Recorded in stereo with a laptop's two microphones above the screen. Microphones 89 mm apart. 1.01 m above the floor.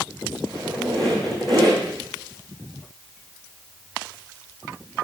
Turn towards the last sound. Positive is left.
turn(degrees=0)  # may be behind; listen again after turning